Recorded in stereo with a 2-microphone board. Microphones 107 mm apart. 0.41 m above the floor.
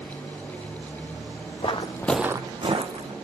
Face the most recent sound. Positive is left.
turn(degrees=-65)  # may be behind; listen again after turning